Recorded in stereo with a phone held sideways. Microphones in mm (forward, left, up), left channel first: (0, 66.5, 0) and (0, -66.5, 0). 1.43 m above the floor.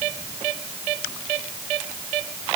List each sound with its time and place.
Only background noise.